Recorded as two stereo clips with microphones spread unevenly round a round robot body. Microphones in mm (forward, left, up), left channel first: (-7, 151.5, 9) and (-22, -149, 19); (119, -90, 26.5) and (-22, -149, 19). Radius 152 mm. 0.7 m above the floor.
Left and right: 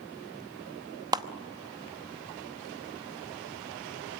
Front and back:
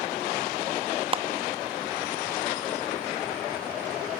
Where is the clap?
165° right, 0.8 m.